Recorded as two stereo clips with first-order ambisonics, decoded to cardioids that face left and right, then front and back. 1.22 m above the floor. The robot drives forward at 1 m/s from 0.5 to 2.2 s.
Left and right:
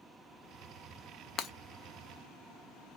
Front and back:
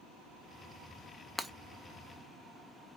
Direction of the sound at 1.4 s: 85° left.